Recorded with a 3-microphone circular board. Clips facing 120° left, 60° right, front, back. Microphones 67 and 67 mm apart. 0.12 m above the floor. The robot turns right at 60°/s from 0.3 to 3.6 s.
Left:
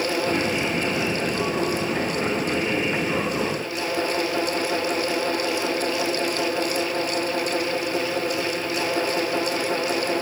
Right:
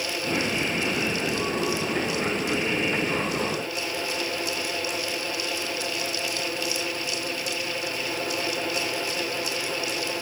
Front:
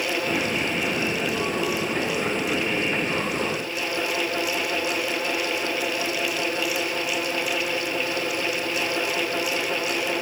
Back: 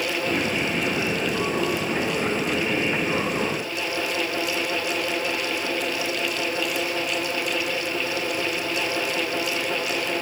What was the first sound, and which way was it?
Only background noise.